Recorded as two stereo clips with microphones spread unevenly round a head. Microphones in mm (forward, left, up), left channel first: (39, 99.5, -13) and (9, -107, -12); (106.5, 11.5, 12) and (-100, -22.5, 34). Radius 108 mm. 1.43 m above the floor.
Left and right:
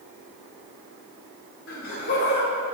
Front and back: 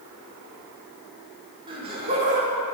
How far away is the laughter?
About 4.5 m.